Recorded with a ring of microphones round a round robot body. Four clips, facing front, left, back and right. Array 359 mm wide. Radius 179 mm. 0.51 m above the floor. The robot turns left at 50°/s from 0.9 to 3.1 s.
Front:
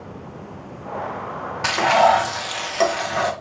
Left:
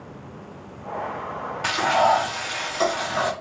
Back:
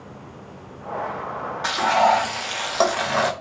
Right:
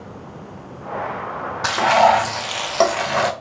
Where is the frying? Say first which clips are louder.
Right 5 dB, front 3 dB; 45° right, 0.8 m; by 3.3 s 115° right, 0.8 m.